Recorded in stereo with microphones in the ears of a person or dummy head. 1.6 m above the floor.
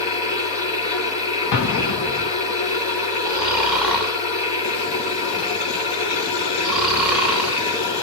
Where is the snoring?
Centre (ahead or behind), 5.5 m.